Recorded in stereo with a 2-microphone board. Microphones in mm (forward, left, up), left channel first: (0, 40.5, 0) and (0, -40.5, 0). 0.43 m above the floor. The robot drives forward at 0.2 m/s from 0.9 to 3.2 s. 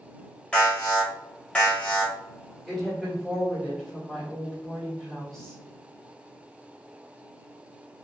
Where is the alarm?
15° left (ahead or behind), 1.0 m.